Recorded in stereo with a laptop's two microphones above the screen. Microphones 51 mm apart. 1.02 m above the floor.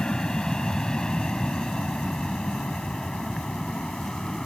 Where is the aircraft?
15° left (ahead or behind); by 4.5 s 10° left (ahead or behind).